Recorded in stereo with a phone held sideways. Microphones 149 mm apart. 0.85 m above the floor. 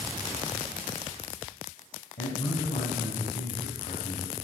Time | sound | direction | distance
2.2 | a man speaking | 80° left | 3.5 m